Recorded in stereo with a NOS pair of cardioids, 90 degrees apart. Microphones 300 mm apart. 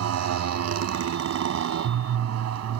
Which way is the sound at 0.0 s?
65° right.